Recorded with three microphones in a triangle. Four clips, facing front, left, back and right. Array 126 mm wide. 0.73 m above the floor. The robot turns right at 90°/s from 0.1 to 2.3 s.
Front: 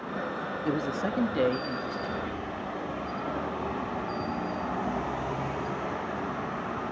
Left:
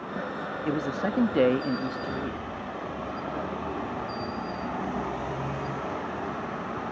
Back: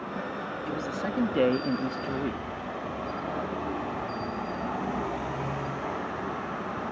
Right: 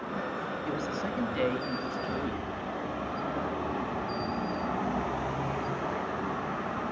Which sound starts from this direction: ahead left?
A man speaking, at 0.7 s.